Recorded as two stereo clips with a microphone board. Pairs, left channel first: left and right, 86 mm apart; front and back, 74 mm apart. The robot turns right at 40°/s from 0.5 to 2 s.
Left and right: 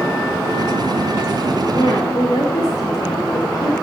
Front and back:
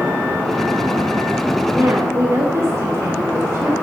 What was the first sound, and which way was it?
A woman speaking, 120° left.